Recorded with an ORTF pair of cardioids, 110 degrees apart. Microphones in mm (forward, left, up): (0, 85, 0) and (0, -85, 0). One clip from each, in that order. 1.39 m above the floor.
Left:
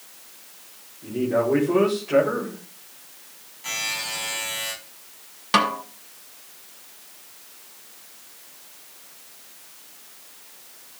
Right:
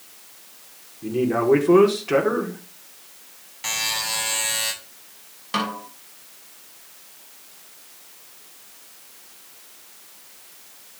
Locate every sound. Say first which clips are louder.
1.0 s a man speaking: right 2 dB; 50° right, 5 m
3.6 s a buzzer: right 3 dB; 65° right, 7.5 m
5.5 s a snare drum: left 6 dB; 40° left, 3 m